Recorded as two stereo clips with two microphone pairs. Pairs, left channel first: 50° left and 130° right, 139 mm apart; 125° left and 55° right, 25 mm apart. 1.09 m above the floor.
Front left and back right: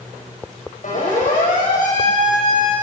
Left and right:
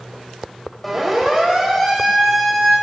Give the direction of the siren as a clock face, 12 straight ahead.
11 o'clock.